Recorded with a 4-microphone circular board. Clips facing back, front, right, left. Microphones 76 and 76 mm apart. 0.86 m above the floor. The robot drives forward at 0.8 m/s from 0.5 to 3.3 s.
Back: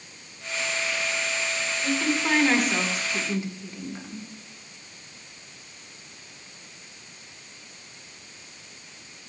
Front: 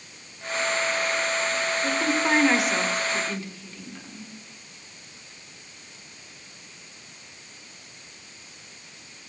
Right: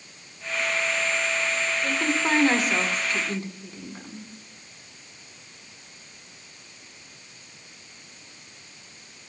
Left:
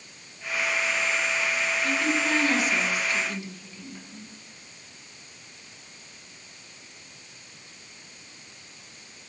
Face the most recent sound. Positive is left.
turn(degrees=-115)